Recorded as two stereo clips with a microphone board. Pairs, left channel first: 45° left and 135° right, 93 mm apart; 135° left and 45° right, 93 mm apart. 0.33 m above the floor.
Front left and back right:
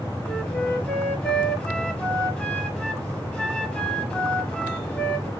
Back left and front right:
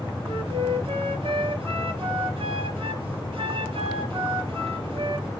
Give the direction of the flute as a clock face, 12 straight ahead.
1 o'clock.